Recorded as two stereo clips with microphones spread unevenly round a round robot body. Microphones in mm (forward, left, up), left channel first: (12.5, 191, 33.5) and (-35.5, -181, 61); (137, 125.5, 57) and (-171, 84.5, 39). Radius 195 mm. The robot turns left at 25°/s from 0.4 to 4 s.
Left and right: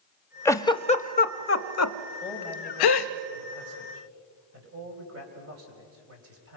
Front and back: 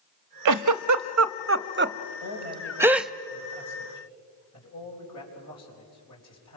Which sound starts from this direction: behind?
A giggle, at 0.5 s.